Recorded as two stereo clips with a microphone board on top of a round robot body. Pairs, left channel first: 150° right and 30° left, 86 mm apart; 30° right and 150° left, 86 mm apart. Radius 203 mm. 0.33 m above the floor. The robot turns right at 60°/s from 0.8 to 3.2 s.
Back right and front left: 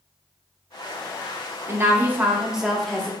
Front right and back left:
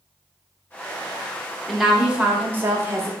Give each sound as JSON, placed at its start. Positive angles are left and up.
{"t": 1.7, "sound": "a woman speaking", "azimuth_deg": 55, "distance_m": 0.9}